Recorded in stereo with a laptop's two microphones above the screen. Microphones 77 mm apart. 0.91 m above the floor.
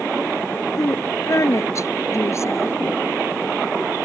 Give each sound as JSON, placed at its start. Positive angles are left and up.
{"t": 0.8, "sound": "a woman speaking", "side_deg": 45}